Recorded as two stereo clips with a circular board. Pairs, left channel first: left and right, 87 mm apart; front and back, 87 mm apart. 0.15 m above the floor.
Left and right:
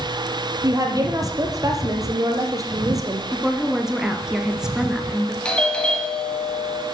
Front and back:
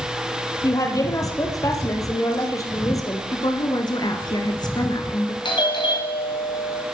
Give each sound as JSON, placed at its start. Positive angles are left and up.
{"t": 0.6, "sound": "a woman speaking", "azimuth_deg": -45, "distance_m": 3.5}
{"t": 3.3, "sound": "a woman speaking", "azimuth_deg": -10, "distance_m": 2.0}
{"t": 5.5, "sound": "a doorbell", "azimuth_deg": 10, "distance_m": 4.0}